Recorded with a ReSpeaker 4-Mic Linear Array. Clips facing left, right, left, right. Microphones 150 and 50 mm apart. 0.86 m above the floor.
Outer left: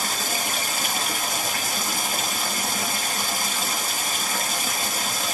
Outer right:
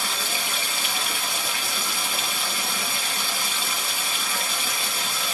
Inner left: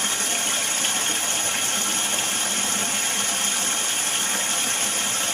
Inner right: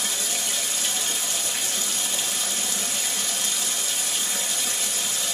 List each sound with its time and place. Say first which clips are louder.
0.0 s running water: outer left 2 dB, inner left 3 dB; 45° left (ahead or behind), 1.1 m